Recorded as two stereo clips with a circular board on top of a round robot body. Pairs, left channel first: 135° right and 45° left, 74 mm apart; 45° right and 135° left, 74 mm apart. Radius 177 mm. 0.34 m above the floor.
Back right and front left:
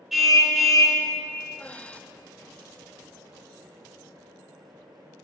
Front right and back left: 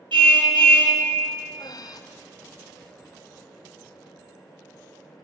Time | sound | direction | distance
0.1 | a car horn | 130° left | 3.5 m
1.6 | breathing | 65° right | 0.9 m